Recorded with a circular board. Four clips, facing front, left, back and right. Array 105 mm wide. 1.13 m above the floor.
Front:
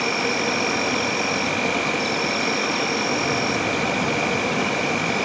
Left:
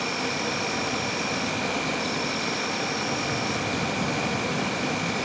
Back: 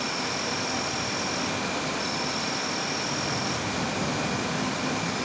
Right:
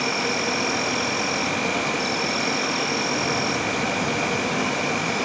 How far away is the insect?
About 1.3 m.